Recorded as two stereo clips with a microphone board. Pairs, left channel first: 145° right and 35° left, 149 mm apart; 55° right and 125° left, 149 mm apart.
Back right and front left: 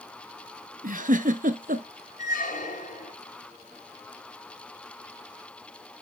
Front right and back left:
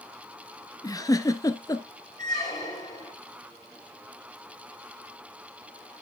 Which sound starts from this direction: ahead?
A giggle, at 0.8 s.